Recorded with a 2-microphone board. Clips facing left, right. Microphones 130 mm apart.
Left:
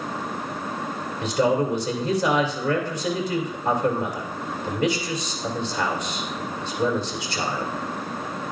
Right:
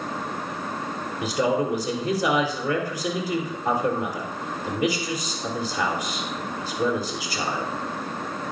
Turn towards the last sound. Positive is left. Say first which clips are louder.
# left 2 dB
turn(degrees=-5)  # may be behind; listen again after turning